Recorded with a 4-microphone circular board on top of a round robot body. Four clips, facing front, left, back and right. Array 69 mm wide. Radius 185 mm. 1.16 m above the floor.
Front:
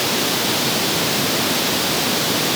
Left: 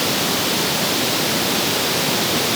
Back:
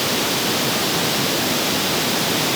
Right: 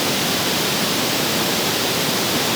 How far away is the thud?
No thud in this recording.